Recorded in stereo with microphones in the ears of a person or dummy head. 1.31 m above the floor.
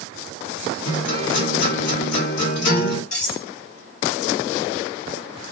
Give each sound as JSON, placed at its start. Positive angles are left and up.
{"t": 0.8, "sound": "a guitar", "side_deg": 55, "distance_m": 1.4}
{"t": 3.1, "sound": "cutlery clinking", "side_deg": 50, "distance_m": 1.1}